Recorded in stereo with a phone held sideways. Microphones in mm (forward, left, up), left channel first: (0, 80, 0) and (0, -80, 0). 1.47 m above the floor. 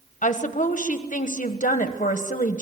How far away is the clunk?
No clunk in this recording.